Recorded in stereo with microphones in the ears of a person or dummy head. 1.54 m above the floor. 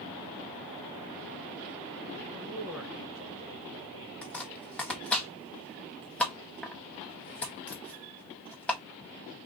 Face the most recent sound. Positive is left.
turn(degrees=10)  # may be behind; listen again after turning